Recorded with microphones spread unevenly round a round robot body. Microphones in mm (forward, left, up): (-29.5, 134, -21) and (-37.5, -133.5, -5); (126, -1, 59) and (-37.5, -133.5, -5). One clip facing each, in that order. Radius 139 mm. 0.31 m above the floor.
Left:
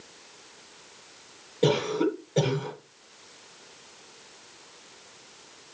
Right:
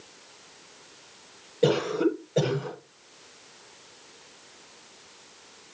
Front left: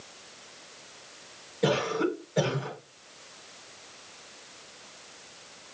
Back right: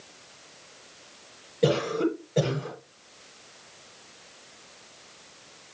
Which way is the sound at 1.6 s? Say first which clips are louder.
Right 1 dB, back right 3 dB; 175° left.